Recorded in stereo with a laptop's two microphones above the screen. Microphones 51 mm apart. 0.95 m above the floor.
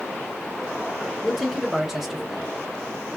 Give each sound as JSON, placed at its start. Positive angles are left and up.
{"t": 1.2, "sound": "a man speaking", "side_deg": -5, "distance_m": 0.6}